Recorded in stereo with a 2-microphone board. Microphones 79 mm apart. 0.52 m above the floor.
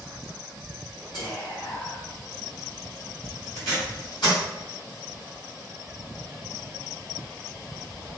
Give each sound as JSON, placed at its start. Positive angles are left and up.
{"t": 1.1, "sound": "whispering", "side_deg": 65, "distance_m": 1.5}
{"t": 3.5, "sound": "tape being pulled", "side_deg": 65, "distance_m": 1.9}